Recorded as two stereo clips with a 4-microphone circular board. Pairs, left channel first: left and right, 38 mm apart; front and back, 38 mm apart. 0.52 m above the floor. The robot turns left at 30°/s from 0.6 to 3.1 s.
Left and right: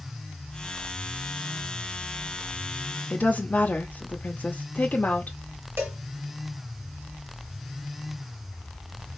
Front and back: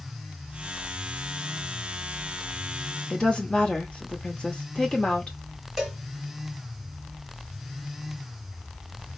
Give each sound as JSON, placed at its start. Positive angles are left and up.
{"t": 3.1, "sound": "a woman speaking", "azimuth_deg": 55, "distance_m": 1.0}
{"t": 5.8, "sound": "a cowbell", "azimuth_deg": -100, "distance_m": 1.5}